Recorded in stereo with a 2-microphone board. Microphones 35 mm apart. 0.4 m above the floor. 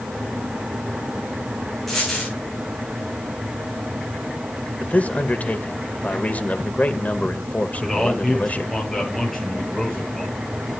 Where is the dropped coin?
5° left (ahead or behind), 9 m.